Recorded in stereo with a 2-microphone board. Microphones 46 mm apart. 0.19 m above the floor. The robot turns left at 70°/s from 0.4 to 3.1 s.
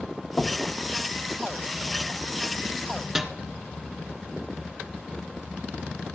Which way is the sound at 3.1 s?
10° right (ahead or behind).